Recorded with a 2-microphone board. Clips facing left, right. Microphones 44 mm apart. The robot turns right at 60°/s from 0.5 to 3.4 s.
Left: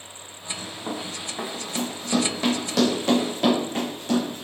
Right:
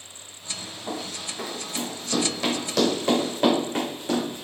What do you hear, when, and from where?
0.9 s running footsteps: 45° left (ahead or behind), 1.6 m; by 4.4 s 25° right (ahead or behind), 3.5 m